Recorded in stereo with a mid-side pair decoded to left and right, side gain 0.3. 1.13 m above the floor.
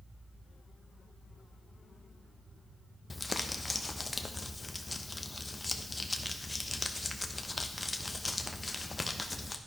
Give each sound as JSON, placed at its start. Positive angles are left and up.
{"t": 3.1, "sound": "crumpling", "azimuth_deg": 25, "distance_m": 0.8}